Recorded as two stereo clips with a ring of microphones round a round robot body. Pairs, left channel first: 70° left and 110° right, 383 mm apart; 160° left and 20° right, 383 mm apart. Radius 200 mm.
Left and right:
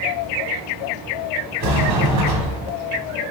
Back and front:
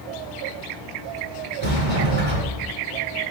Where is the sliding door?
80° right, 0.9 m.